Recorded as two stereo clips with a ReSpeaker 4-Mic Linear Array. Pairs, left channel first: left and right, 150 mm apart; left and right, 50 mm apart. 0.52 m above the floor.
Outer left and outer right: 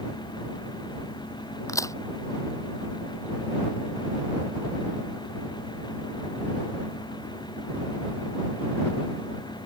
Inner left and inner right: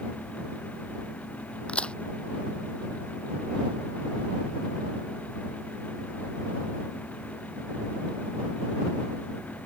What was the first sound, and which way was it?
A crack, 20° left (ahead or behind).